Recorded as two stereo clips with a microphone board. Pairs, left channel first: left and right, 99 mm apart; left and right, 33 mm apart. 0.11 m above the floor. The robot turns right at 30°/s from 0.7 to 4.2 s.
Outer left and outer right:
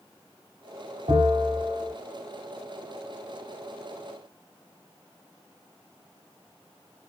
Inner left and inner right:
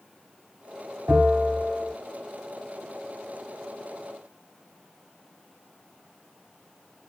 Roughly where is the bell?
Right.